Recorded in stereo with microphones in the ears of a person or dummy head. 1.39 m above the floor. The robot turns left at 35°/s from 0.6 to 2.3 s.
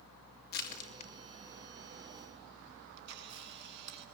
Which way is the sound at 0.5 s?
55° left (ahead or behind).